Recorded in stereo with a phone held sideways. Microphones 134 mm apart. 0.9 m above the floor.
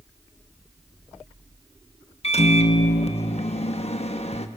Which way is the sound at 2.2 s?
50° left (ahead or behind).